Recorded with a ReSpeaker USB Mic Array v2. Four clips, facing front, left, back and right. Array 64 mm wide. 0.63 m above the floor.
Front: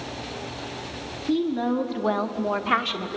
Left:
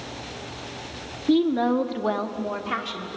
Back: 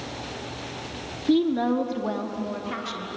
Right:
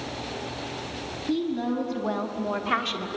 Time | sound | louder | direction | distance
1.3 | a woman speaking | left 7 dB, back 2 dB | 115° left | 1.5 m